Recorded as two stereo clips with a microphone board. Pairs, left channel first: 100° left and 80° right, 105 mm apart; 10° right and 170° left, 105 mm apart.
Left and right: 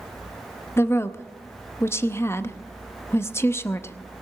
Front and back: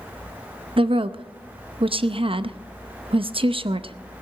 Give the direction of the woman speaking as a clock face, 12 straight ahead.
7 o'clock.